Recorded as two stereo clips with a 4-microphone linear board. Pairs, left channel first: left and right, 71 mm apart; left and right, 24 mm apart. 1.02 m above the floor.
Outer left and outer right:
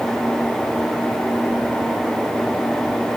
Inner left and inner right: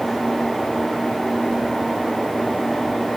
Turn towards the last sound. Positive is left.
No sound to turn to.